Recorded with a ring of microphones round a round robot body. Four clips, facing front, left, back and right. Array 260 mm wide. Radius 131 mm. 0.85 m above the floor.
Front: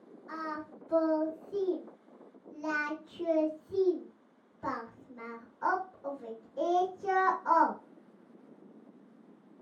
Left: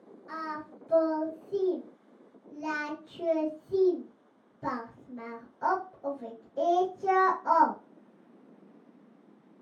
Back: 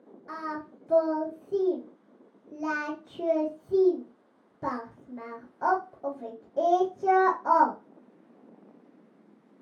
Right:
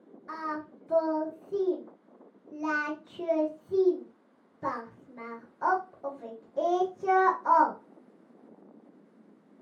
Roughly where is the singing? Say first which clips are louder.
Right 2 dB, back 3 dB; behind.